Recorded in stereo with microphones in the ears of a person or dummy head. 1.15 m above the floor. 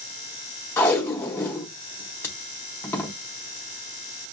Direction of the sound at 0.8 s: 10° left (ahead or behind).